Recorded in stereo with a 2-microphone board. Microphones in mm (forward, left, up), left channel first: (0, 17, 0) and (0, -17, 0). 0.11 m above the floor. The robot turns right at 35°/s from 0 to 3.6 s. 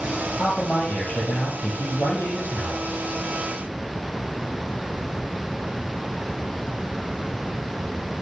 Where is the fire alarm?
No fire alarm in this recording.